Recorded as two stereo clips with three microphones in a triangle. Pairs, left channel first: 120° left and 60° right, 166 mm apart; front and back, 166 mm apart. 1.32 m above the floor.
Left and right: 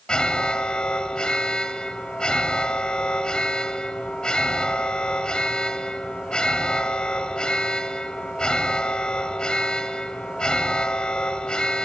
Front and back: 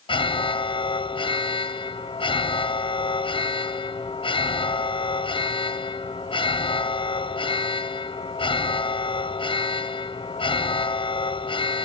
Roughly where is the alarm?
Ahead left.